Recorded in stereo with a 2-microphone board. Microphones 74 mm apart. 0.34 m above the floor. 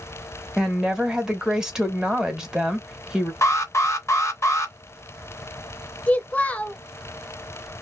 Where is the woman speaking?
10° right (ahead or behind), 1.0 m.